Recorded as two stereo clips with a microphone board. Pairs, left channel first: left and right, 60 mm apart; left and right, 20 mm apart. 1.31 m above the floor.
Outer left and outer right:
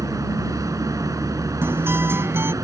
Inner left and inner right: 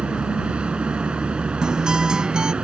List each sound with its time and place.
0.0 s a vehicle: 85° right
1.6 s a guitar: 45° right (ahead or behind)